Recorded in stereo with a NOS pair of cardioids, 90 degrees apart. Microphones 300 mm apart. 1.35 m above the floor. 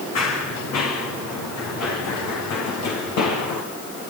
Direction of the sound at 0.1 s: 60° left.